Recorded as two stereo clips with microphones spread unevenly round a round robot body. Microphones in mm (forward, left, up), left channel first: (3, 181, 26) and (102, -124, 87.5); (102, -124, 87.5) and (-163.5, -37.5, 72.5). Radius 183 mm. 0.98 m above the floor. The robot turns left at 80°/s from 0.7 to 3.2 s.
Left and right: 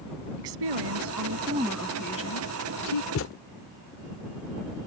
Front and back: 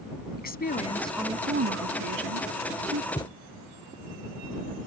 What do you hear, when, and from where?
0.4 s a woman speaking: 75° right; by 3.0 s 95° left
3.1 s a thud: 60° left; by 3.3 s 55° left